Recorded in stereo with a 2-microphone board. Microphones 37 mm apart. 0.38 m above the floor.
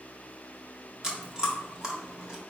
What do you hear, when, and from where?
1.0 s chewing: 20° right (ahead or behind), 0.9 m